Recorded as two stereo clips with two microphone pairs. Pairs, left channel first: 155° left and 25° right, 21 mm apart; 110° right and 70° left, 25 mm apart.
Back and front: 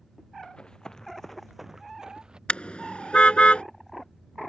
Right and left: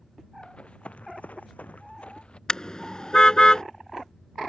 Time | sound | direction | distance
0.4 | running footsteps | 160° right | ?
2.5 | a car horn | 170° right | ?